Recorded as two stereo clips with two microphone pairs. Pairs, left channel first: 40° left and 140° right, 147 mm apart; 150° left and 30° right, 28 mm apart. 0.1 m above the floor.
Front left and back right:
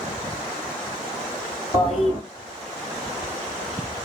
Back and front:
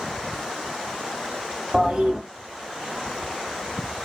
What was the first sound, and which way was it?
A toilet flushing, 15° left.